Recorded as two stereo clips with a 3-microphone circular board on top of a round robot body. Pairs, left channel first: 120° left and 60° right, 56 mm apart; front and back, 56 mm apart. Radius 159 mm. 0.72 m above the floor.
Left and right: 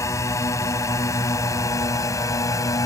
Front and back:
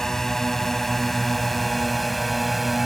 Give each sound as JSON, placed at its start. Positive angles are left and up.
{"t": 0.0, "sound": "a drone", "azimuth_deg": 85}